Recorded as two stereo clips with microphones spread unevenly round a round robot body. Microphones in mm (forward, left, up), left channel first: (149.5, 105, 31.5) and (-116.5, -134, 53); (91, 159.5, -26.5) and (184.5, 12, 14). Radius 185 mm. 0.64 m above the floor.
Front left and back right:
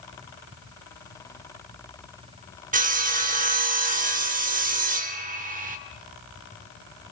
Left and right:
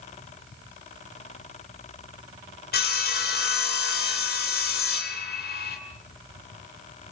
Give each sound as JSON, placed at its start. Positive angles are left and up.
{"t": 2.7, "sound": "sawing", "azimuth_deg": 150, "distance_m": 2.5}